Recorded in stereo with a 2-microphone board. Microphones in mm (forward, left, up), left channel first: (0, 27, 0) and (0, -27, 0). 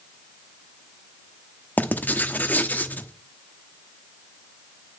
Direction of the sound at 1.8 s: 30° left (ahead or behind).